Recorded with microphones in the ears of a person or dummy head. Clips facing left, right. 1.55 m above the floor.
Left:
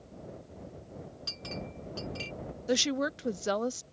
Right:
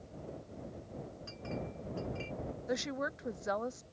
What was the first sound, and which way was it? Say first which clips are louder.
A clink: right 1 dB; 55° left (ahead or behind).